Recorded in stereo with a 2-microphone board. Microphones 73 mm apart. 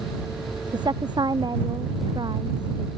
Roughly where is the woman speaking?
Right.